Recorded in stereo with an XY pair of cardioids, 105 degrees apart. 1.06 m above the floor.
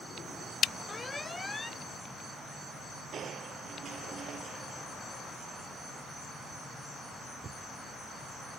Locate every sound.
0.9 s an alarm: 25° left
3.1 s crushing: 50° right